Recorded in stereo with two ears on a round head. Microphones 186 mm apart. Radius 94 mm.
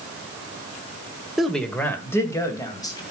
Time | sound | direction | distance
1.4 | a man speaking | centre (ahead or behind) | 1.4 m